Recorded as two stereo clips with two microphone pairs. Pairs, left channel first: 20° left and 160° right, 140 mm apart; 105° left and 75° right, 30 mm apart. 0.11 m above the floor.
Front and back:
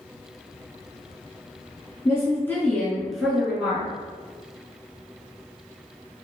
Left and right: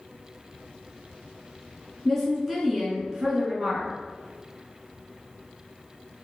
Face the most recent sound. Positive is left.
turn(degrees=-95)